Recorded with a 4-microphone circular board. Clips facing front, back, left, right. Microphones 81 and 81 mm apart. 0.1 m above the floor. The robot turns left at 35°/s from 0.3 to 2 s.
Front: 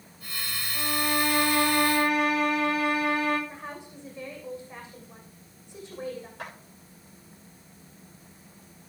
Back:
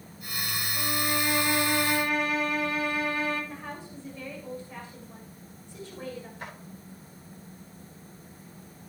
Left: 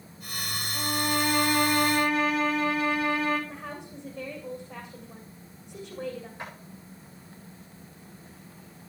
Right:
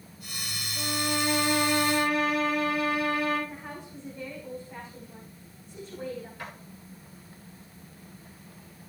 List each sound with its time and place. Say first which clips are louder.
0.7 s a violin: front 3 dB, left 2 dB; 70° left, 8 m; by 3.4 s 25° left, 8 m
3.5 s a woman speaking: back 1 dB, left 2 dB; 70° left, 7.5 m
6.4 s a clap: front 1 dB, left 1 dB; 25° left, 8 m